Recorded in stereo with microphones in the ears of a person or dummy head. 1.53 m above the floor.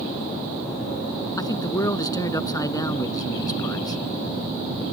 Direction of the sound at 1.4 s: 20° left (ahead or behind).